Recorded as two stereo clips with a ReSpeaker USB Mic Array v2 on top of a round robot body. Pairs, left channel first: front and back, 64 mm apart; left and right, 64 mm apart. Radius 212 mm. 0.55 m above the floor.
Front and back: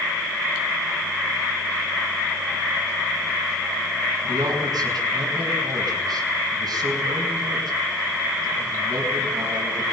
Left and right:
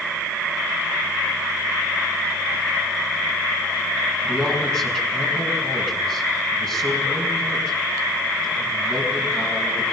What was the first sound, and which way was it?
A man speaking, 170° left.